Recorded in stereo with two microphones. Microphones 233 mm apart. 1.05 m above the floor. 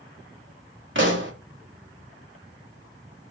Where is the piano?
I don't hear a piano.